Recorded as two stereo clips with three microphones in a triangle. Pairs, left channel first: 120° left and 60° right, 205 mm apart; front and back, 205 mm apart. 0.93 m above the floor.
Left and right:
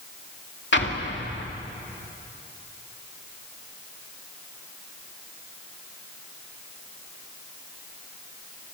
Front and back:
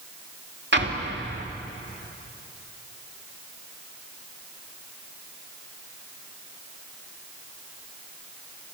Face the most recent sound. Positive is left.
turn(degrees=150)